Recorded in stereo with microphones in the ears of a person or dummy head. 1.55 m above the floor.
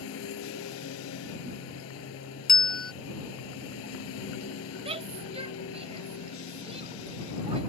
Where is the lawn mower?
70° left (ahead or behind).